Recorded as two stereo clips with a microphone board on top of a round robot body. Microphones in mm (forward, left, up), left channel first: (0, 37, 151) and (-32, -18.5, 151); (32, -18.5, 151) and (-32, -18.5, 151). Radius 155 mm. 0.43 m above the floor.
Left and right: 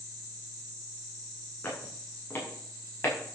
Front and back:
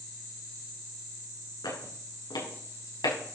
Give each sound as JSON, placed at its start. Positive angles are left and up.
{"t": 1.6, "sound": "footsteps", "azimuth_deg": 5, "distance_m": 6.0}